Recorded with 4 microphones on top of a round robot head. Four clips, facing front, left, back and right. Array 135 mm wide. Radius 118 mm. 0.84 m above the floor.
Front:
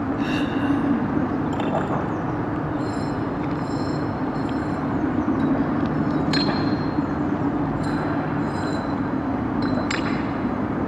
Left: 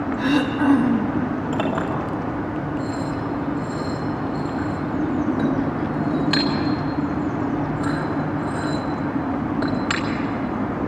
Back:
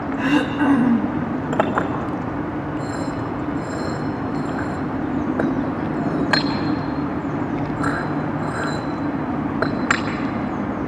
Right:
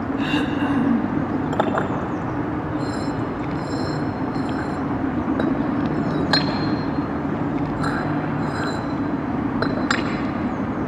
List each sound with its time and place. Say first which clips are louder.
0.2 s throat clearing: left 2 dB, back 8 dB; 150° left, 1.9 m
1.5 s a clink: right 2 dB, back 3 dB; 150° right, 3 m